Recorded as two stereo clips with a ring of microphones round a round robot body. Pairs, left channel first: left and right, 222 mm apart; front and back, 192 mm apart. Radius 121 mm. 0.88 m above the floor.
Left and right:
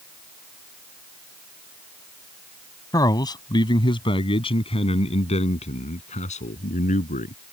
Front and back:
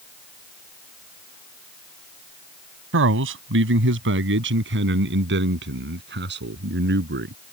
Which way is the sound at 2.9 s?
165° left.